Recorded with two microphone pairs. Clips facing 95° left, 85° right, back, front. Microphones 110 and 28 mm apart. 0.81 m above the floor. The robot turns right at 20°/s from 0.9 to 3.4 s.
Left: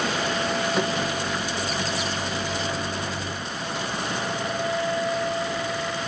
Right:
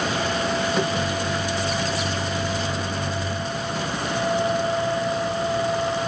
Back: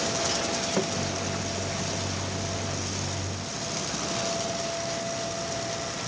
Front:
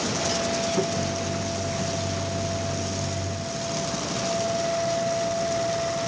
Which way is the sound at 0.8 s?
175° right.